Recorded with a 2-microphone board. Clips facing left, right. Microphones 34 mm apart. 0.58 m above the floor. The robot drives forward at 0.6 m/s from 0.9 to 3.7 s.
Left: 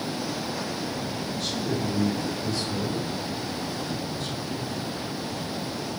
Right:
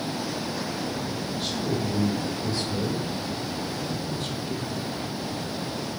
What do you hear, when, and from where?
1.3 s a man speaking: 25° right (ahead or behind), 3 m; by 4.9 s 40° right (ahead or behind), 1.9 m